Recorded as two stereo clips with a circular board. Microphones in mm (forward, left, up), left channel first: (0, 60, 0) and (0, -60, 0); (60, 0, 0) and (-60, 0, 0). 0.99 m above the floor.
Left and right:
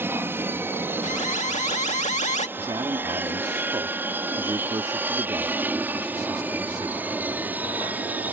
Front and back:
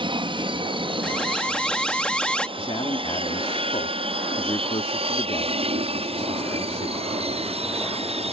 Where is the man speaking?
35° right.